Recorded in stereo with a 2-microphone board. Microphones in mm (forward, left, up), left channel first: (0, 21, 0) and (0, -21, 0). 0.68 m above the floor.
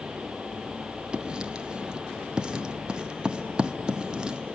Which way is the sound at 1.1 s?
20° right (ahead or behind).